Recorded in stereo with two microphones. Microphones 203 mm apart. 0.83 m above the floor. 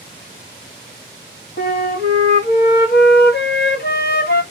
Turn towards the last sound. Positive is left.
turn(degrees=55)  # may be behind; listen again after turning